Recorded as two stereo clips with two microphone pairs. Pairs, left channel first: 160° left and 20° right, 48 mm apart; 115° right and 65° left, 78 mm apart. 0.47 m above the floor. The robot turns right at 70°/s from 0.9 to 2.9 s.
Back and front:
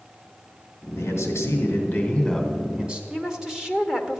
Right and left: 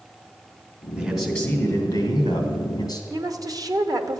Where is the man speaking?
140° left, 2.5 m; by 3.0 s 80° right, 2.5 m.